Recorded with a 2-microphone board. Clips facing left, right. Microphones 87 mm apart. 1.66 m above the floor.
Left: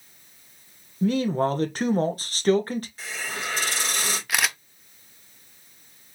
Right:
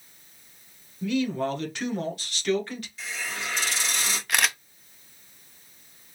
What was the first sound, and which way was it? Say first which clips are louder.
A man speaking: left 4 dB; 40° left (ahead or behind).